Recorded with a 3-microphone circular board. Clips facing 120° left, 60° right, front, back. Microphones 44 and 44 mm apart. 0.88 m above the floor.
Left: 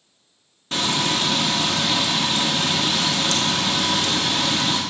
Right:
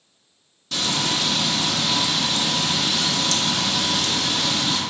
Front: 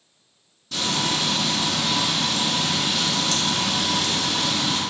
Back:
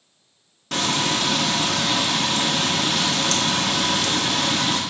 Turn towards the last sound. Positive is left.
turn(degrees=170)